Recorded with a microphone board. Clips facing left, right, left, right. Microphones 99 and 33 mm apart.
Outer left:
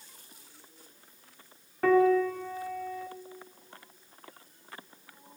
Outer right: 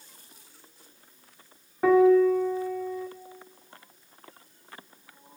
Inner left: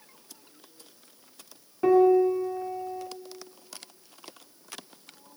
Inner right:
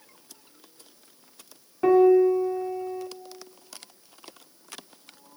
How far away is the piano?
About 1.1 m.